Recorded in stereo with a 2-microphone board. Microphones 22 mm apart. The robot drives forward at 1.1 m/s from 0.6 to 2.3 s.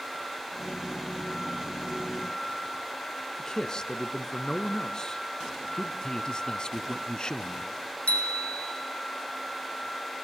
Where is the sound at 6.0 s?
35° left (ahead or behind), 1.2 m.